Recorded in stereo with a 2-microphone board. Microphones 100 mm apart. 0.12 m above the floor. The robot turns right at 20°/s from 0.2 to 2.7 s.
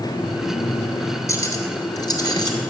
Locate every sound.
1.3 s cutlery clinking: 35° left (ahead or behind), 1.1 m; by 2.7 s 50° left (ahead or behind), 1.1 m